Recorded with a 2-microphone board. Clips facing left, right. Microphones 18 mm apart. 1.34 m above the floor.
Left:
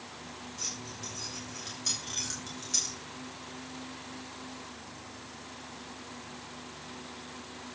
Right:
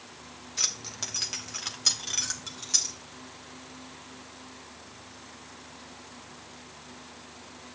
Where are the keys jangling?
80° right, 1.2 m; by 3.0 s 15° right (ahead or behind), 2.5 m.